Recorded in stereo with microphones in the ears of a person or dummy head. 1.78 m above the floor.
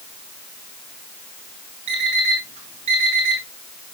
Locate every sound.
1.9 s an alarm clock: 35° right (ahead or behind), 1.4 m